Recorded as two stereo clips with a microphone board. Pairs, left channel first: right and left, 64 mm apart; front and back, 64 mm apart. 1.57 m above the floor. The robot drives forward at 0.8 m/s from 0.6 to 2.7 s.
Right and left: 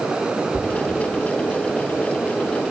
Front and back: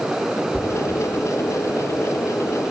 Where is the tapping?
105° left, 1.8 m.